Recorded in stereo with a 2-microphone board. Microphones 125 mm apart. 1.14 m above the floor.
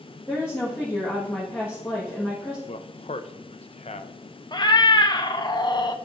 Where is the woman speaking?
20° left (ahead or behind), 1.5 m.